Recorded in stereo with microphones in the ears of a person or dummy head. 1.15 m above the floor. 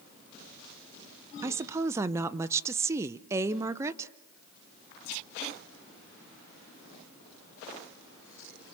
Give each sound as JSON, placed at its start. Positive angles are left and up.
{"t": 1.4, "sound": "a woman speaking", "side_deg": -20, "distance_m": 0.6}